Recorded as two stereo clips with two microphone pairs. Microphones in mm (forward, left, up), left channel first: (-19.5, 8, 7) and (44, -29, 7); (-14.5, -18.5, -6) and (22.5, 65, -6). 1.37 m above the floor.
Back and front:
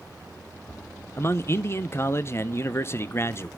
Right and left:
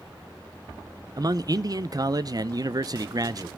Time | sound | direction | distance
1.2 | a man speaking | 100° left | 0.5 m